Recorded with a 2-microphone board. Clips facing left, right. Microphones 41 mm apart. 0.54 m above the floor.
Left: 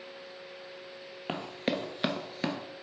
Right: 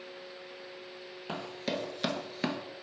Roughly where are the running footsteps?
Left.